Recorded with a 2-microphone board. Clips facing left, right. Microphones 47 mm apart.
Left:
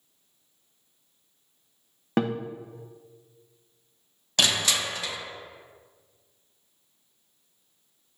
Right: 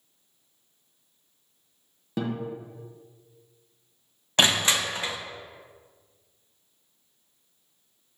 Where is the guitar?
60° left (ahead or behind), 0.7 m.